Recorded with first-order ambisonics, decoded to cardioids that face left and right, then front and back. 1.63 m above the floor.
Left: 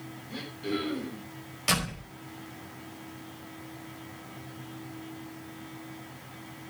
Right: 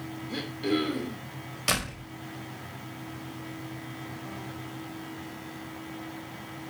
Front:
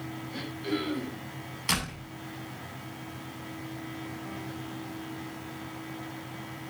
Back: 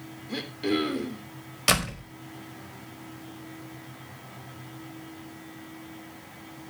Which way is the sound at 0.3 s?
155° right.